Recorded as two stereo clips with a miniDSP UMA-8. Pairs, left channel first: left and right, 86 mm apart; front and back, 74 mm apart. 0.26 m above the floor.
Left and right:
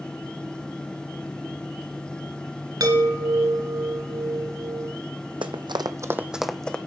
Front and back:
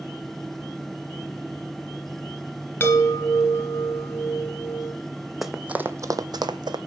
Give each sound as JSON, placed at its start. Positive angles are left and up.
{"t": 2.8, "sound": "a chime", "azimuth_deg": -60, "distance_m": 1.6}
{"t": 5.4, "sound": "running footsteps", "azimuth_deg": -90, "distance_m": 0.7}